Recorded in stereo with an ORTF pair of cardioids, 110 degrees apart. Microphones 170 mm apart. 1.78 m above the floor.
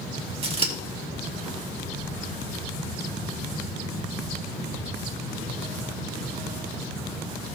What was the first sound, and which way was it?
Scissors, 35° right.